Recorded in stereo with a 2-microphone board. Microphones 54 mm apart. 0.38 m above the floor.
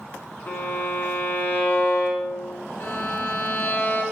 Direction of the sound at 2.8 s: 30° left (ahead or behind).